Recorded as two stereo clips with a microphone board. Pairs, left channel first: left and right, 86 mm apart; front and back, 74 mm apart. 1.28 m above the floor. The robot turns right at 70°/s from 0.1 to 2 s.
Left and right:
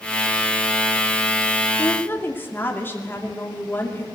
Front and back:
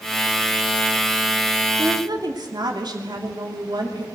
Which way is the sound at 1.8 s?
140° left.